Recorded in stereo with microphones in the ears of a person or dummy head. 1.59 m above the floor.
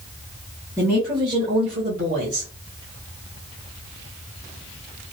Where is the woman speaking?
15° right (ahead or behind), 1.5 m; by 2.5 s 65° right (ahead or behind), 1.3 m.